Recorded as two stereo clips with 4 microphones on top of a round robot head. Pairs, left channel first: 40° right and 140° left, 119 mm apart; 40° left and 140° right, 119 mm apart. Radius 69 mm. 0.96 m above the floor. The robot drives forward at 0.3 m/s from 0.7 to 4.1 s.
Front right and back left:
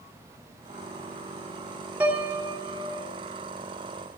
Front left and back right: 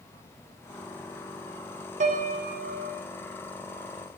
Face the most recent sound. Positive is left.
turn(degrees=-150)